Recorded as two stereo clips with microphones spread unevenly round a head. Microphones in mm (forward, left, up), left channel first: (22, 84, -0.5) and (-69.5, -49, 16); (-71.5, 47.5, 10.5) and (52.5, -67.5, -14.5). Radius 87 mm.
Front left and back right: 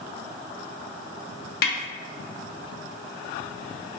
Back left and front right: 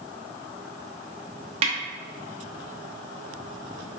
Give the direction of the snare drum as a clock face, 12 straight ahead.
11 o'clock.